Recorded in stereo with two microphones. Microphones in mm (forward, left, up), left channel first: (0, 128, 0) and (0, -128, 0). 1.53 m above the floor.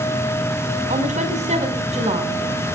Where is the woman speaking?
25° right (ahead or behind), 5.5 m; by 2.4 s 20° right (ahead or behind), 7 m.